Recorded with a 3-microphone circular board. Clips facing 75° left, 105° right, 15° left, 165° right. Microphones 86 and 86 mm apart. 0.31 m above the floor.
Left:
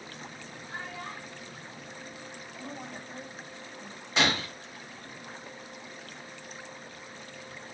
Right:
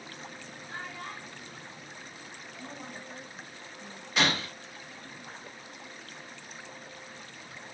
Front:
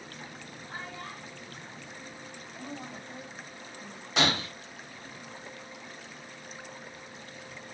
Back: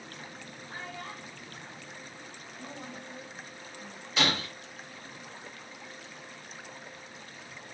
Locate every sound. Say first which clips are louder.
0.7 s a child speaking: left 1 dB, even; 10° right, 2.5 m; by 3.0 s 40° left, 3 m
2.5 s a woman speaking: left 2 dB, front 2 dB; 65° left, 1.9 m
4.2 s breaking glass: left 1 dB, front 2 dB; 5° left, 3 m